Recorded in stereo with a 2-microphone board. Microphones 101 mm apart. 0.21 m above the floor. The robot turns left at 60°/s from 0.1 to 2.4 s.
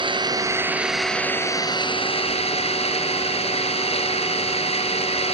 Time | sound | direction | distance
0.0 | an engine running | 130° right | 2.5 m